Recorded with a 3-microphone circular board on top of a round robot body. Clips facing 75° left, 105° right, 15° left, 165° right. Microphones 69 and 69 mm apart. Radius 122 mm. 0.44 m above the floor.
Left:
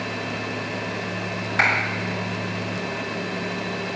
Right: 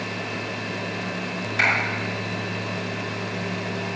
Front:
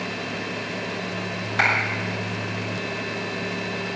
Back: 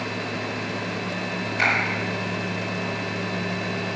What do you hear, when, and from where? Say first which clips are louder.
1.6 s a clap: left 2 dB, front 2 dB; 30° left, 6.5 m